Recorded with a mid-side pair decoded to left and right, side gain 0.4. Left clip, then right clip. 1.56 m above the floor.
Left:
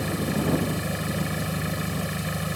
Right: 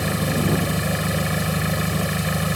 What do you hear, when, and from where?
0.0 s an engine running: 55° right